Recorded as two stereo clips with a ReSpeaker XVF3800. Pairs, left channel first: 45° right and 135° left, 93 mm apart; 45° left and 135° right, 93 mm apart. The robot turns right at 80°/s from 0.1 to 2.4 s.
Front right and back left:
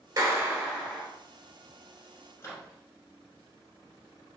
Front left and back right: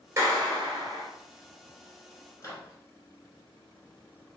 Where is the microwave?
Straight ahead, 1.3 m.